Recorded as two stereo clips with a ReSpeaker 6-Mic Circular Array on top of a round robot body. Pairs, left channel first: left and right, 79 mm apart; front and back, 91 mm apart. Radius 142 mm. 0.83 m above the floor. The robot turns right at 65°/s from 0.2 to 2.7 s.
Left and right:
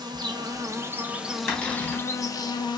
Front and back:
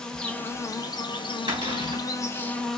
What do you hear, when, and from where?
0.0 s an insect: 80° right, 0.8 m; by 2.8 s 80° left, 0.8 m
1.5 s a cupboard door: 155° left, 2.5 m; by 2.0 s 170° right, 2.5 m